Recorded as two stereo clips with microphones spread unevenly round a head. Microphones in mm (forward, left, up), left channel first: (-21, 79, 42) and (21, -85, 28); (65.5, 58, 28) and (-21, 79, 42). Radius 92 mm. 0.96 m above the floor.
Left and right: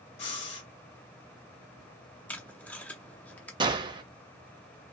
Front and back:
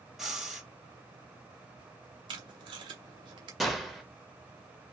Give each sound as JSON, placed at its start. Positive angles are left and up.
{"t": 0.2, "sound": "breathing", "azimuth_deg": 80, "distance_m": 2.0}
{"t": 2.3, "sound": "tape being pulled", "azimuth_deg": 180, "distance_m": 0.6}
{"t": 3.6, "sound": "a gunshot", "azimuth_deg": -90, "distance_m": 0.8}